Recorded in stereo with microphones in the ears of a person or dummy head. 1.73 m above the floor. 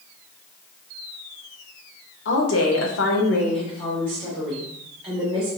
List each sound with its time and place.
2.2 s a woman speaking: 80° left, 1.1 m; by 5.5 s 15° right (ahead or behind), 1.9 m